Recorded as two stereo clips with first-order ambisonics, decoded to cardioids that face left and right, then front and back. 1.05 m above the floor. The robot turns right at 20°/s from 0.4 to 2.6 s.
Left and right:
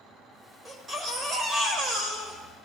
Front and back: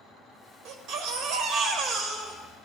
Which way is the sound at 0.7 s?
165° right.